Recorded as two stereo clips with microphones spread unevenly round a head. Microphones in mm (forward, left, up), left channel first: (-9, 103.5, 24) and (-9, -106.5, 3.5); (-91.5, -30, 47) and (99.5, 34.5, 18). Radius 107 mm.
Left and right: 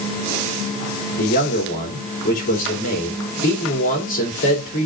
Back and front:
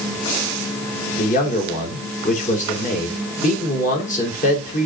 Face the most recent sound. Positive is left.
turn(degrees=145)